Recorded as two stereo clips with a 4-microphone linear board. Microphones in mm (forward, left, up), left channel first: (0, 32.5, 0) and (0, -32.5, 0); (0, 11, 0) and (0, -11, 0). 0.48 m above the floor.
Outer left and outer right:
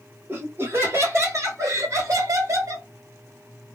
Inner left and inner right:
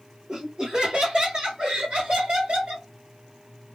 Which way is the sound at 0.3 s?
30° right (ahead or behind).